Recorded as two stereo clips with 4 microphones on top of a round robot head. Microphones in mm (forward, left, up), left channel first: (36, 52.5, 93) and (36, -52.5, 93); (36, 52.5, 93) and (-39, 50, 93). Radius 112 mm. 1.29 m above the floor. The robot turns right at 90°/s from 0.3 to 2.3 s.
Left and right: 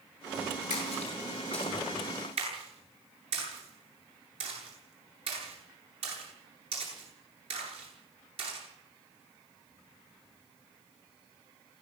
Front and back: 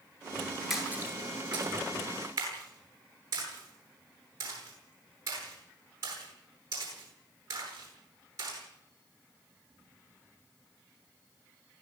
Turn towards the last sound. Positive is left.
turn(degrees=-120)